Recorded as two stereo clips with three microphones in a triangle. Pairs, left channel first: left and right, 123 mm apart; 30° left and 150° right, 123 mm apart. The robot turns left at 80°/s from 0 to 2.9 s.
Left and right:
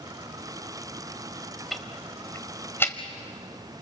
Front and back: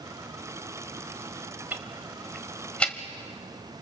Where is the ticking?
175° left, 1.4 m; by 3.0 s 80° left, 1.4 m.